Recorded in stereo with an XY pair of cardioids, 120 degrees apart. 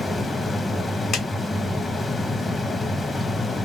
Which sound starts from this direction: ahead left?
A clap, at 1.1 s.